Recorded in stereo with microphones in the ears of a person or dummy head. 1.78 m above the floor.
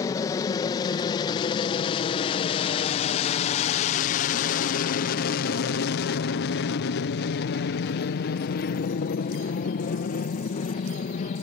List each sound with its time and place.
0.0 s an aircraft: 20° left (ahead or behind); by 11.4 s 40° left (ahead or behind)